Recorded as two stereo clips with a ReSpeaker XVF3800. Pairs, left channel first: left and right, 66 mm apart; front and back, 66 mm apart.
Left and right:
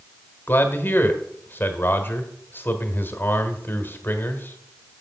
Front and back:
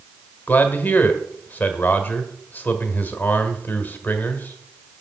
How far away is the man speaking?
About 1.4 m.